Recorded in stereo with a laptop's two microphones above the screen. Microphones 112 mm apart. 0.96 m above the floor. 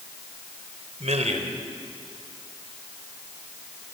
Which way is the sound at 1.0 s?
85° right.